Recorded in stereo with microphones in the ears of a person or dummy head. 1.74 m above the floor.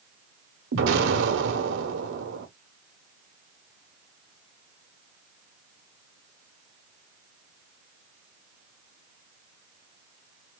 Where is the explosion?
75° right (ahead or behind), 1.3 m.